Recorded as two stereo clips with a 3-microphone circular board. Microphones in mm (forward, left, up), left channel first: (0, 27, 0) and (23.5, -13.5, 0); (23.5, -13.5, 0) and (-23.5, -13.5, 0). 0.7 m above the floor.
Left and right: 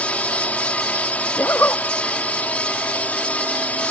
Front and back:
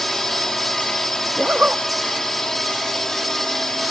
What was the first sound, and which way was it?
A drone, 80° left.